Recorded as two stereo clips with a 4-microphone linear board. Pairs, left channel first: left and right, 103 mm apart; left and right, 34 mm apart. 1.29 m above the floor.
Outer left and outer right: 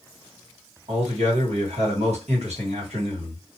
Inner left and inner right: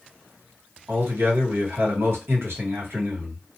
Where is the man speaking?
85° right, 1.3 m.